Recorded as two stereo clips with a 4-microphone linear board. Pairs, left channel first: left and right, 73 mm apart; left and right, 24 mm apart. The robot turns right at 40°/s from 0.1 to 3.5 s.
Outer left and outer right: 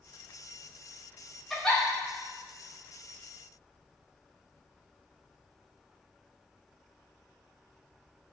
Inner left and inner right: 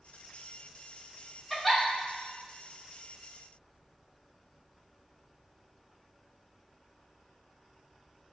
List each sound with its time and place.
1.5 s a giggle: 5° left (ahead or behind), 0.6 m; by 1.8 s 15° left (ahead or behind), 0.6 m